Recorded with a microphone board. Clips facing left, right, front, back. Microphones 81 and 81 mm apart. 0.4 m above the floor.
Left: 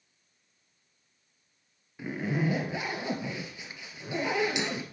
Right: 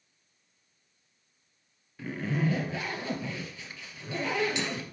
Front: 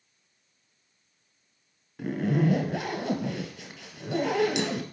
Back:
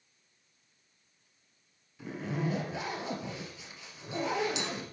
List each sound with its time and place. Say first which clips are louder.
2.0 s a zipper: even, front 9 dB; 15° left, 1.1 m